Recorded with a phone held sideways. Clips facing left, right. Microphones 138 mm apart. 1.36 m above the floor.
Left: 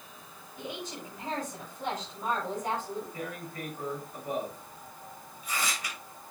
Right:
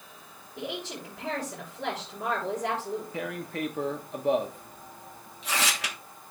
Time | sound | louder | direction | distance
0.6 | a woman speaking | right 3 dB | 70° right (ahead or behind) | 6 m
3.1 | tearing paper | right 5 dB | 70° right (ahead or behind) | 1.1 m